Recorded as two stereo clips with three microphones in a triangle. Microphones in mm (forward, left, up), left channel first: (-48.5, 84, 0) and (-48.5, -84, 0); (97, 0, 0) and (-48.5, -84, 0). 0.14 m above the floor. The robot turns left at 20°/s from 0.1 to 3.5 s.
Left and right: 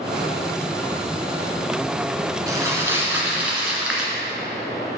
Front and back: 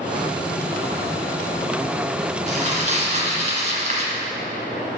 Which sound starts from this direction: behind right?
Crumpling, at 2.5 s.